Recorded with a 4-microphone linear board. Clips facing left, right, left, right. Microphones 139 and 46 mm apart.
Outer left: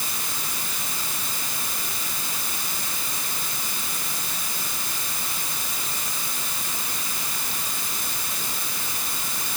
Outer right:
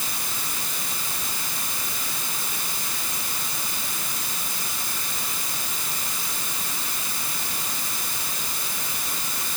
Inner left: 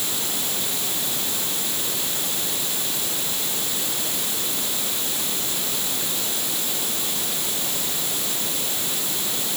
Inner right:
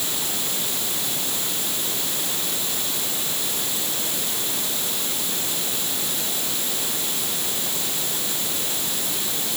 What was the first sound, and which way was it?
Only background noise.